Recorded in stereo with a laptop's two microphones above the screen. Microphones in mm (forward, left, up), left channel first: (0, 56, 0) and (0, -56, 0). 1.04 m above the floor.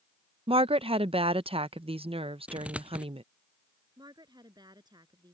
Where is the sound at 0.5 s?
60° right (ahead or behind).